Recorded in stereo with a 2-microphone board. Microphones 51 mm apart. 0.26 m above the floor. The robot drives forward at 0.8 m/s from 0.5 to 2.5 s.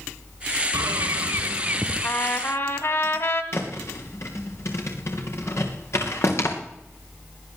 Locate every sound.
0.7 s a bird: 85° right, 0.6 m; by 2.1 s 25° right (ahead or behind), 1.3 m
2.0 s a trumpet: 45° left (ahead or behind), 1.7 m; by 3.4 s 50° left (ahead or behind), 1.6 m
3.5 s a thud: 55° left (ahead or behind), 3 m